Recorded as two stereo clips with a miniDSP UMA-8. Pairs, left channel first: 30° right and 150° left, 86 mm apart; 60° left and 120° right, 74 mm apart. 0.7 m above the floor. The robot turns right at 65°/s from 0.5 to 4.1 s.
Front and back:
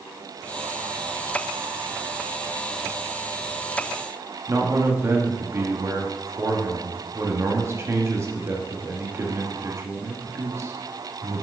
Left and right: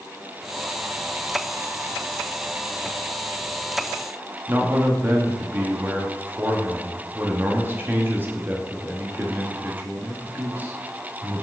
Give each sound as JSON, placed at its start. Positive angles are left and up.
{"t": 4.5, "sound": "a man speaking", "azimuth_deg": -170, "distance_m": 1.1}